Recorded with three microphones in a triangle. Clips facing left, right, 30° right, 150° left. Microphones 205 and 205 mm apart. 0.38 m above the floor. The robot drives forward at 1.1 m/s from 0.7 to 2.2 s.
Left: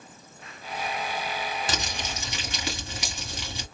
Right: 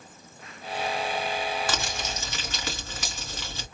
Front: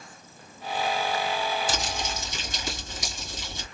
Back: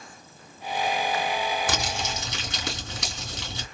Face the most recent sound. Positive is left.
turn(degrees=165)